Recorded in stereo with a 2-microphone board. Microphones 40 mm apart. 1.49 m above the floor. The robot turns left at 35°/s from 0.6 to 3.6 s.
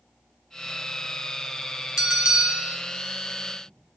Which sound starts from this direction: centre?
A bell, at 2.0 s.